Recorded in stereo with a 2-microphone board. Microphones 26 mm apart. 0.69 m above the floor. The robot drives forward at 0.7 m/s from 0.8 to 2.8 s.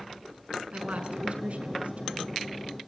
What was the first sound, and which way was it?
A woman speaking, 65° right (ahead or behind).